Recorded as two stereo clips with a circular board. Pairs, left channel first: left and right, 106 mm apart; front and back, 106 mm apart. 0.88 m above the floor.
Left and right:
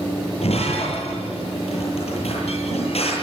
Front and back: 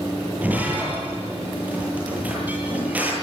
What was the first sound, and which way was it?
Breaking glass, 105° left.